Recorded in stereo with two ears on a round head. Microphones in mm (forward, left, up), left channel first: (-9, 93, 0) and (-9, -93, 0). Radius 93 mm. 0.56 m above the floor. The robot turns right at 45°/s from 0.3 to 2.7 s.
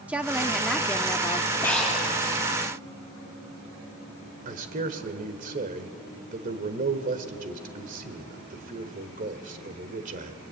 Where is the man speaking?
40° right (ahead or behind), 2 m.